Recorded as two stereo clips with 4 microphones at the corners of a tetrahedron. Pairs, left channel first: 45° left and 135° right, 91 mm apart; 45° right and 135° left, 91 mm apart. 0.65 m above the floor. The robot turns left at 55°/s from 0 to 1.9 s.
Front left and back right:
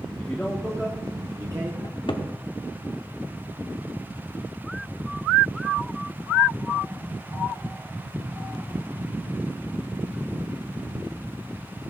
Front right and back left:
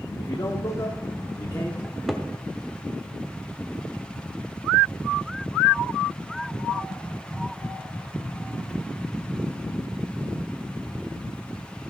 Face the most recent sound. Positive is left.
turn(degrees=45)